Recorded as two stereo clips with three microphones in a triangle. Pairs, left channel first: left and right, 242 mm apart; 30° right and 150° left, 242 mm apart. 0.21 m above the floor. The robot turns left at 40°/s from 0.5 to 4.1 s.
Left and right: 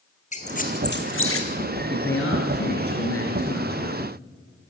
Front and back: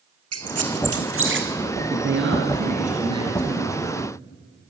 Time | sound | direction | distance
0.3 | a squeak | 150° left | 1.5 m
1.9 | a man speaking | 130° left | 3.5 m